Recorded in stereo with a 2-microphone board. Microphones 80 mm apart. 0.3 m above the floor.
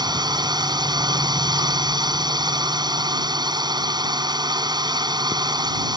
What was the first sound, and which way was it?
A drone, 60° right (ahead or behind).